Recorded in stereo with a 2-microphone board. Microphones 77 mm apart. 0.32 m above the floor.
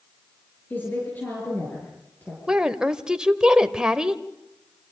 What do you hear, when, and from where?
0.7 s a woman speaking: 25° left (ahead or behind), 6.5 m
2.5 s a woman speaking: 10° right (ahead or behind), 1.0 m